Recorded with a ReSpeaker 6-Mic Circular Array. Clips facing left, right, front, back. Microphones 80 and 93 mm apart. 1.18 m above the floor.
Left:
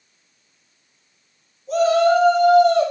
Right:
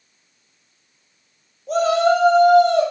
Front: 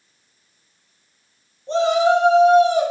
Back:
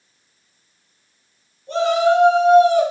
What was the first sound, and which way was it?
A shout, 60° right.